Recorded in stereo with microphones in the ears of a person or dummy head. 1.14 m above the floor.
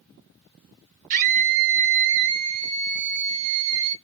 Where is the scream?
40° right (ahead or behind), 0.9 m.